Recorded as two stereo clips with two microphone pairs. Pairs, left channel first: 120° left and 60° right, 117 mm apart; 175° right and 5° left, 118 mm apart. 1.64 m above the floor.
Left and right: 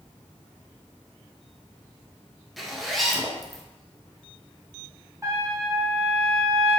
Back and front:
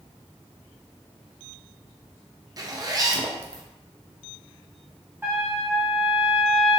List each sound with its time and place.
2.6 s a zipper: 20° left, 0.6 m
5.2 s a trumpet: 40° right, 1.0 m